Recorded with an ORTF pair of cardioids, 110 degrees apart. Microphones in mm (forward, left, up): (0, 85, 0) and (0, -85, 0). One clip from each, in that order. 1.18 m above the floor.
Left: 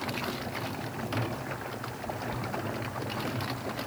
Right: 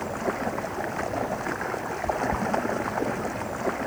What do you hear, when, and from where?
0.0 s running water: 60° right